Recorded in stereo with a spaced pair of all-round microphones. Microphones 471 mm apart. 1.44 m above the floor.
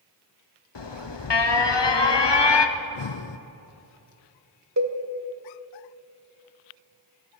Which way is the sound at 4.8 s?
35° right (ahead or behind).